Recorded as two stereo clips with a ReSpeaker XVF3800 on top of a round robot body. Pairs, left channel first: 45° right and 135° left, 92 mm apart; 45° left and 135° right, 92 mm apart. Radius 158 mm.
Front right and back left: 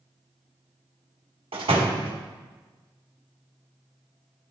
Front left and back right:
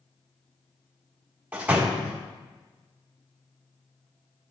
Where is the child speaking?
No child speaking in this recording.